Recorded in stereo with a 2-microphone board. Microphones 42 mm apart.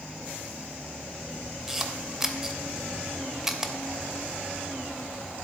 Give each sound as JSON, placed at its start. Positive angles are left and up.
{"t": 1.7, "sound": "a camera shutter", "side_deg": -10, "distance_m": 0.6}